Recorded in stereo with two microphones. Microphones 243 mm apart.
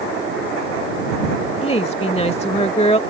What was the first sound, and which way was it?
A woman speaking, 25° left (ahead or behind).